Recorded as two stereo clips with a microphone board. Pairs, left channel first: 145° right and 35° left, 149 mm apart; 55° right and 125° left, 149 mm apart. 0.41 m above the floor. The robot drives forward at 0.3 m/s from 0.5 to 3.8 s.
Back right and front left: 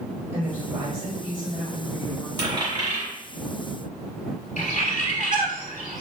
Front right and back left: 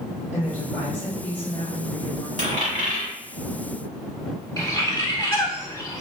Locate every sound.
0.3 s a woman speaking: 10° left, 1.4 m; by 2.3 s 15° left, 1.0 m
2.4 s a dropped coin: 95° left, 1.6 m; by 3.1 s 100° left, 1.6 m
4.6 s a bird: 125° right, 1.3 m